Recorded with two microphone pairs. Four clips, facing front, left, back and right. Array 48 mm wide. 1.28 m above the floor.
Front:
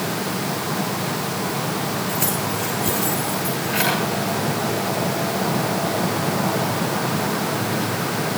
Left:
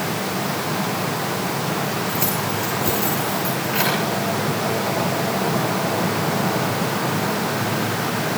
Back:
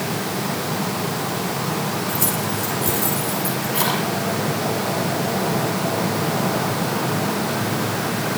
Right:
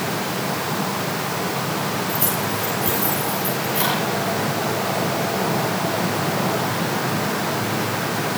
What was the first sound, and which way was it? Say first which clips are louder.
Keys jangling: even, even; 25° left.